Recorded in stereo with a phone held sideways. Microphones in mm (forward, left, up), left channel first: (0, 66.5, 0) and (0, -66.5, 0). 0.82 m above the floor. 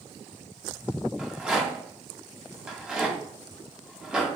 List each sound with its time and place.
1.2 s a rattle: 5° right (ahead or behind), 1.1 m